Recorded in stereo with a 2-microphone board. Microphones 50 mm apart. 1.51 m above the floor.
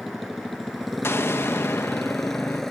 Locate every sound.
0.0 s a motorcycle: centre (ahead or behind); by 2.7 s 10° left (ahead or behind)
1.0 s an explosion: 55° left (ahead or behind)